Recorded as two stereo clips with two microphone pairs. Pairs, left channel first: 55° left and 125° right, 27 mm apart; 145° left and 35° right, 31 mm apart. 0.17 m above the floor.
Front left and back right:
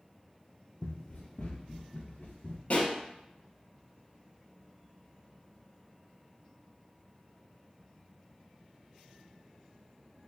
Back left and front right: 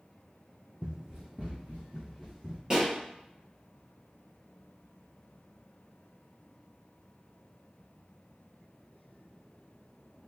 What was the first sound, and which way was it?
Running footsteps, 10° left.